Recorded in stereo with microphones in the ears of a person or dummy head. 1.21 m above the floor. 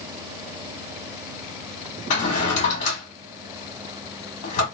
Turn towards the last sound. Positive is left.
turn(degrees=35)  # may be behind; listen again after turning